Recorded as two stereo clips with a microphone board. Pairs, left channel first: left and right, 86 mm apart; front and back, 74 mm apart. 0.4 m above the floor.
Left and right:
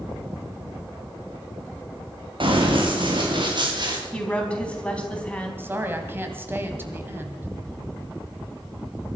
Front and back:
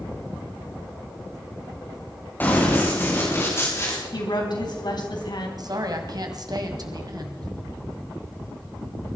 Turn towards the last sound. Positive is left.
turn(degrees=-155)